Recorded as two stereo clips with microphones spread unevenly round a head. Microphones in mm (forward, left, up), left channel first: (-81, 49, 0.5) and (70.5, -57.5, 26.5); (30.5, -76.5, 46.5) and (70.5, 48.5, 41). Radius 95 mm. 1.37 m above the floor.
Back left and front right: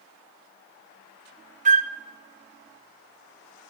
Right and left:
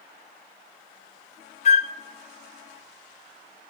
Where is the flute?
75° right, 0.7 m.